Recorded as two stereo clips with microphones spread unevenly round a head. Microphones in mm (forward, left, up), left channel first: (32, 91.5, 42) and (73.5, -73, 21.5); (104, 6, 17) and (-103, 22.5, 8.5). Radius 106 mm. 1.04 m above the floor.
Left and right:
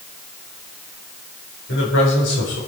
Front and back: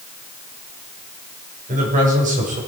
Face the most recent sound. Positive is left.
turn(degrees=120)